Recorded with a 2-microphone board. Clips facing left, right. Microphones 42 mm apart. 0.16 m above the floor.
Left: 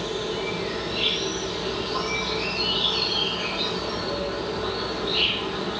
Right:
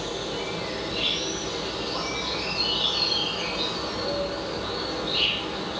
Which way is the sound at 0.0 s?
20° left (ahead or behind).